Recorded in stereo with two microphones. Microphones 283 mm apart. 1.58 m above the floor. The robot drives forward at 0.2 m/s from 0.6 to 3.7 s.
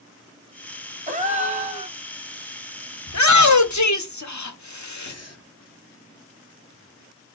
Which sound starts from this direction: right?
A gasp, at 1.1 s.